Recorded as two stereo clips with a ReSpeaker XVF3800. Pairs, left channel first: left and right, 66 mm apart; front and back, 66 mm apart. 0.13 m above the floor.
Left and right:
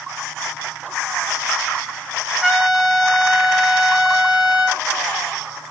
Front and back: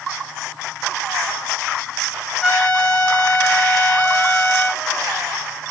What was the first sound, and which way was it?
A trumpet, 30° right.